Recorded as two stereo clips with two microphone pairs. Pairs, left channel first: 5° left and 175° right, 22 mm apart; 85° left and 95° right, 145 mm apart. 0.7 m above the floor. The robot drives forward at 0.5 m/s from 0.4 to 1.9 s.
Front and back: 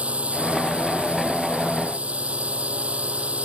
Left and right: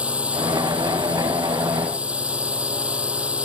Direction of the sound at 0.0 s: Straight behind.